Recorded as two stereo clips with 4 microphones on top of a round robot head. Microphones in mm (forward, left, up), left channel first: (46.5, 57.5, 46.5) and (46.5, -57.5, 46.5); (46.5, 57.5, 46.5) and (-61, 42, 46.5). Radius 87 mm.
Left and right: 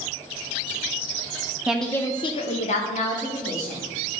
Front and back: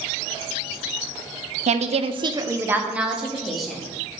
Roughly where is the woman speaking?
Behind.